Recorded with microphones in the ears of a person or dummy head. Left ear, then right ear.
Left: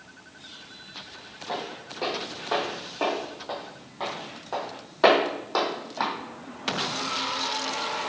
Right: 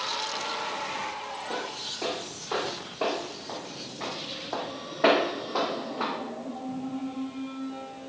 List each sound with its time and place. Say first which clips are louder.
1.5 s footsteps: left 2 dB; 25° left (ahead or behind), 2.5 m; by 6.1 s 50° left (ahead or behind), 2.5 m